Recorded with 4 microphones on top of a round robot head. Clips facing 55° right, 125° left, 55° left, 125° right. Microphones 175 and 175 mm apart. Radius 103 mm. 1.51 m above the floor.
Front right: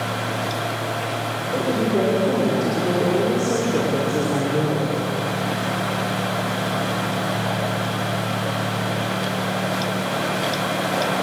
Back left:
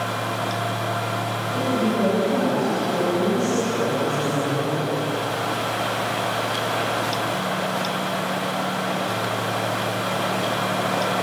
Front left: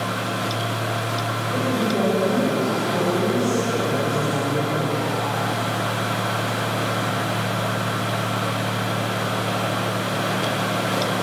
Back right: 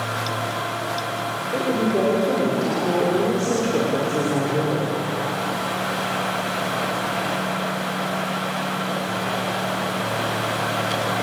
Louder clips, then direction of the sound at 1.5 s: Front right 2 dB, back right 2 dB; 70° right.